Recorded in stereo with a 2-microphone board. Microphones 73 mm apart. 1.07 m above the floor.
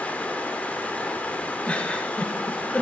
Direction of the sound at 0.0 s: 20° left (ahead or behind).